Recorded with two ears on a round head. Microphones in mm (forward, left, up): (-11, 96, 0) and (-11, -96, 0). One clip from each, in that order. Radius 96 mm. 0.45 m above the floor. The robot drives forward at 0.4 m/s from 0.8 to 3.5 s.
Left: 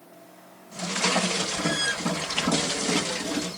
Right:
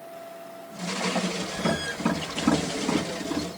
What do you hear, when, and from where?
1.6 s tapping: 5° right (ahead or behind), 7 m